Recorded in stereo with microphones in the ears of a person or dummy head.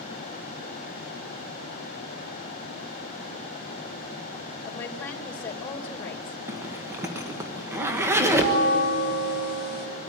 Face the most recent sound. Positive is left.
turn(degrees=-60)  # may be behind; listen again after turning